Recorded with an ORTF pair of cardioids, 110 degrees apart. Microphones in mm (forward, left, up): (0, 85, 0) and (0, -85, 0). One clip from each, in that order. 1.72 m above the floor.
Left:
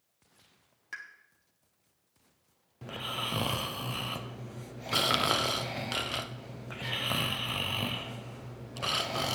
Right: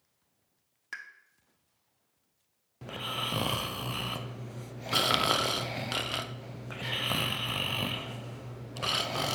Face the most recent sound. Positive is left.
turn(degrees=-10)